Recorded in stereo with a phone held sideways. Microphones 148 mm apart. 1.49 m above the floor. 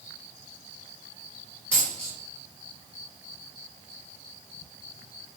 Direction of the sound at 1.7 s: 10° left (ahead or behind).